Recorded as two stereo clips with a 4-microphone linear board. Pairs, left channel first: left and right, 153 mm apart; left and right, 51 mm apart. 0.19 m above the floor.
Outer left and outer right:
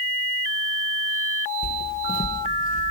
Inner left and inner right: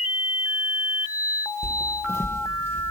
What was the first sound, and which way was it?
Footsteps, 65° left (ahead or behind).